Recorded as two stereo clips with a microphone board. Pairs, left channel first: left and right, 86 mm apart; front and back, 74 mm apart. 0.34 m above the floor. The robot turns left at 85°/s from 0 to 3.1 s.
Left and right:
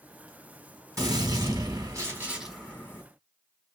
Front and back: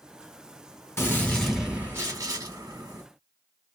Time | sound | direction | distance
1.0 | a gunshot | 45° right | 1.8 m